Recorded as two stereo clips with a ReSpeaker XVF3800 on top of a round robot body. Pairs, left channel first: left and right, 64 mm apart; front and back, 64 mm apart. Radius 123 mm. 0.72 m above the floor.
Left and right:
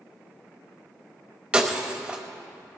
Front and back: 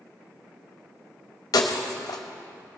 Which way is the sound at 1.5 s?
20° right.